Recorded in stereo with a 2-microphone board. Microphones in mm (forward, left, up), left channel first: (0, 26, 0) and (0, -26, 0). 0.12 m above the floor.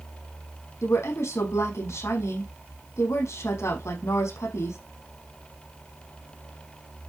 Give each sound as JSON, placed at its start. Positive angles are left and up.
{"t": 0.8, "sound": "a woman speaking", "side_deg": 70, "distance_m": 5.0}